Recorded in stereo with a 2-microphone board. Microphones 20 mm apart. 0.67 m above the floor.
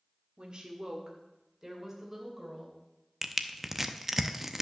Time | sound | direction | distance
0.4 | a woman speaking | 50° right (ahead or behind) | 1.6 m
3.2 | crushing | 15° right (ahead or behind) | 0.6 m